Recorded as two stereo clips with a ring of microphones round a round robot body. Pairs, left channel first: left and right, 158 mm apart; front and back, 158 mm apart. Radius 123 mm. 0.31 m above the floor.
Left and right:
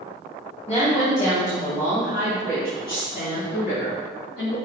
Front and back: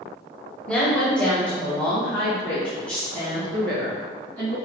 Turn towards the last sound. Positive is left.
turn(degrees=80)